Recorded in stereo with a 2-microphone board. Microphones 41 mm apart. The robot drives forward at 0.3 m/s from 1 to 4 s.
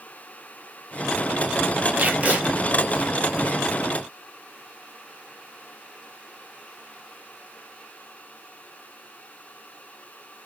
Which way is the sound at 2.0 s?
45° right (ahead or behind).